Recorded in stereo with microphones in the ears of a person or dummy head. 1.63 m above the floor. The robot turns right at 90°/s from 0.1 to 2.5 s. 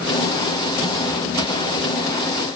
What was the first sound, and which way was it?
Only background noise.